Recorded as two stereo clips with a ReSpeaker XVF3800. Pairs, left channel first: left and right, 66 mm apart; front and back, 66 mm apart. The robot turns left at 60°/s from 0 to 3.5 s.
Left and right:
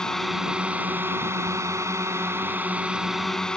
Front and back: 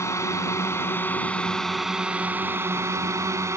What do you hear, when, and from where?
0.0 s a drone: 15° left; by 3.6 s 165° left